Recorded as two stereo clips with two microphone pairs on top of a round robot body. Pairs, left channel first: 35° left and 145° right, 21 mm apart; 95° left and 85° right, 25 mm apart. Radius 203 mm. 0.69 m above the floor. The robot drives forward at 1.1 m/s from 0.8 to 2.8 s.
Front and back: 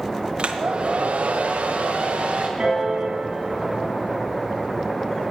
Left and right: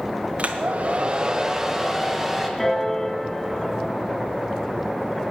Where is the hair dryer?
110° right, 0.6 m; by 2.5 s 165° right, 2 m.